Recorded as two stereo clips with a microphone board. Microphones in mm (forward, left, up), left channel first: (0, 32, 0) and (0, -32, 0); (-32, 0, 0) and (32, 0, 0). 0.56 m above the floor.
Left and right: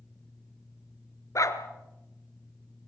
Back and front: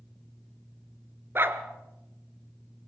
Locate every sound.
1.4 s a dog barking: 55° left, 2.0 m